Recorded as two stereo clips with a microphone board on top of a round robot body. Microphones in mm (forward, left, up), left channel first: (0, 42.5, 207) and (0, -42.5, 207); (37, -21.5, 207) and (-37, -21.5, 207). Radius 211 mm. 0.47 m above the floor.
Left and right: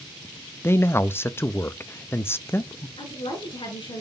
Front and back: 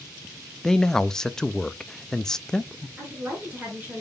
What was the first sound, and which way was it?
A man speaking, 75° left.